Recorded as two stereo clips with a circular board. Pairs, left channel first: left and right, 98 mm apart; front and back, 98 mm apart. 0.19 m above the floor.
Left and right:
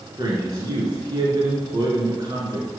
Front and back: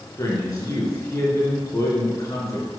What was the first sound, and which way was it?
A man speaking, 45° right.